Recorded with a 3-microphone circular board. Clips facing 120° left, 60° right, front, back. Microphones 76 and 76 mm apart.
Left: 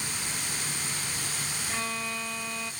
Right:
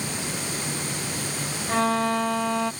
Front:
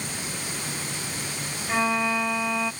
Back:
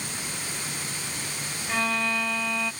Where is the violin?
75° right.